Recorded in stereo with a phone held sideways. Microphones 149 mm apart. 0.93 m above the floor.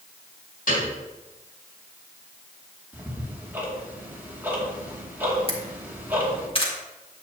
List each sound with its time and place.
0.7 s a piano: 75° left (ahead or behind), 3.5 m
2.9 s ticking: 15° right (ahead or behind), 1.9 m
5.5 s a camera shutter: 40° left (ahead or behind), 1.7 m